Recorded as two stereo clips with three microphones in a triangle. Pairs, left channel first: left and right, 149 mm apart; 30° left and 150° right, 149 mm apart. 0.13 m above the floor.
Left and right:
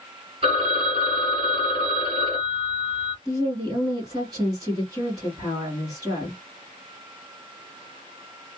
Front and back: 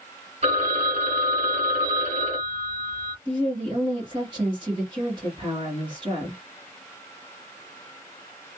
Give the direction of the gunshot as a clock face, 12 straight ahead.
I don't hear a gunshot.